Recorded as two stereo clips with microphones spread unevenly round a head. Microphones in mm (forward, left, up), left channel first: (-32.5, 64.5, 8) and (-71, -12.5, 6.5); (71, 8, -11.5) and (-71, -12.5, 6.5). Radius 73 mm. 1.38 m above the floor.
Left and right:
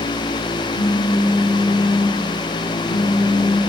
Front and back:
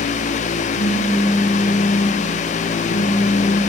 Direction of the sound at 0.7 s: 155° left.